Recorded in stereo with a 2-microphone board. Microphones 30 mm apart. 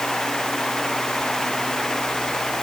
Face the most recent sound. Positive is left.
No sound to turn to.